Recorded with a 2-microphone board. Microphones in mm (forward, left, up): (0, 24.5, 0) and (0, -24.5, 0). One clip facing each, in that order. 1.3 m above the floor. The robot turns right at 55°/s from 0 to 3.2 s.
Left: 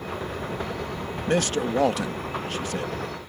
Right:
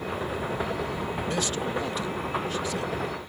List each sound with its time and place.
1.3 s a man speaking: 50° left; by 2.9 s 135° left